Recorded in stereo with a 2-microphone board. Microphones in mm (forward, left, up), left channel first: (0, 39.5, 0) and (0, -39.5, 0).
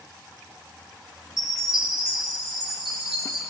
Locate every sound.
1.4 s a chime: 5° right (ahead or behind), 4 m